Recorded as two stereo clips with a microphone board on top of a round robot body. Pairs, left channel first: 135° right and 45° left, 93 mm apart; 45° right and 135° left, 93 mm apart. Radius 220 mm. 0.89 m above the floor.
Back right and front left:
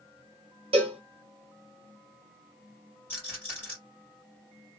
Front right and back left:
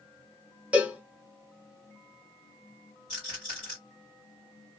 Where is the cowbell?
60° left, 0.6 m.